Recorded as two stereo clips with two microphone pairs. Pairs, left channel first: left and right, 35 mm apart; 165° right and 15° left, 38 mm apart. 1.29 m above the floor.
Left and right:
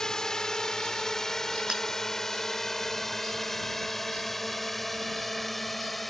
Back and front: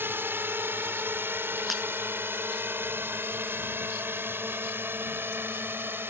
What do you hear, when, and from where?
0.0 s a drone: 20° left; by 6.1 s 5° left
1.7 s breaking glass: 80° right